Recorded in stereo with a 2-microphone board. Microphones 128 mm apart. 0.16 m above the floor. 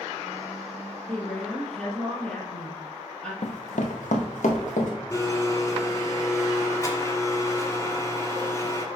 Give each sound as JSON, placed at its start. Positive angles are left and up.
{"t": 1.1, "sound": "a woman speaking", "side_deg": 10, "distance_m": 3.0}
{"t": 3.4, "sound": "running footsteps", "side_deg": 60, "distance_m": 0.9}
{"t": 5.1, "sound": "a blender", "side_deg": 25, "distance_m": 1.3}